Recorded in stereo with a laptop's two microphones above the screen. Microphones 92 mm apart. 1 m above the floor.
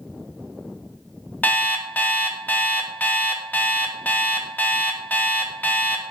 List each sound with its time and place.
1.4 s an alarm clock: 20° left (ahead or behind), 0.6 m